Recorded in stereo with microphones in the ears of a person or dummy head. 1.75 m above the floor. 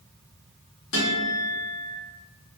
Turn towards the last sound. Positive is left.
turn(degrees=55)  # may be behind; listen again after turning